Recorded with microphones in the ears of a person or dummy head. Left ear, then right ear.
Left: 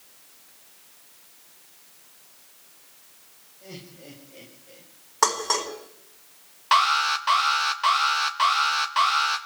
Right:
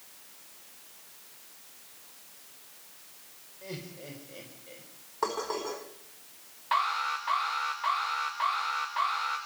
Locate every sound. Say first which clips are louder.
3.6 s laughter: right 1 dB; 30° right (ahead or behind), 5 m; by 4.9 s 35° right (ahead or behind), 5.5 m
5.2 s dishes clattering: left 8 dB; 65° left (ahead or behind), 4.5 m
6.7 s an alarm: left 8 dB; 55° left (ahead or behind), 1.7 m